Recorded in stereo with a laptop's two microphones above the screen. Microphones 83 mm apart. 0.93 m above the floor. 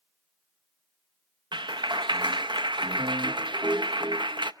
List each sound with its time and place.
1.5 s a clap: 70° right (ahead or behind), 0.7 m